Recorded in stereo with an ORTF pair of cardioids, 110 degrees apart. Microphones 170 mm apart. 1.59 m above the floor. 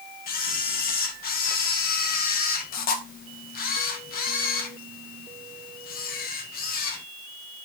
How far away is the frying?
No frying in this recording.